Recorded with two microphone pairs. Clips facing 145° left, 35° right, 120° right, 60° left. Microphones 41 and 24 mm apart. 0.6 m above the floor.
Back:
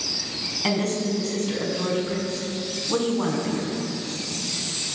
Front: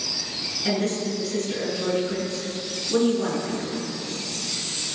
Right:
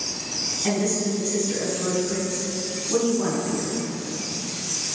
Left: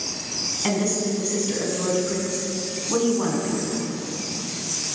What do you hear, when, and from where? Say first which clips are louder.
0.6 s a woman speaking: back 1 dB, left 1 dB; 115° left, 4.5 m